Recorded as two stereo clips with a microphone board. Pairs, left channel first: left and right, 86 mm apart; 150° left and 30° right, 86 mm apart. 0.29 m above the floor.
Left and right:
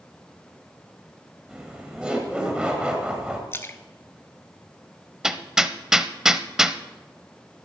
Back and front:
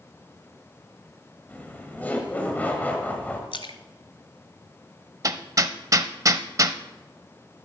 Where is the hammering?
10° right, 0.5 m.